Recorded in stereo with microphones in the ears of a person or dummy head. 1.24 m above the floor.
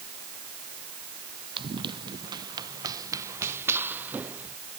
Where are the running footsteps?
30° right (ahead or behind); by 4.6 s 10° right (ahead or behind).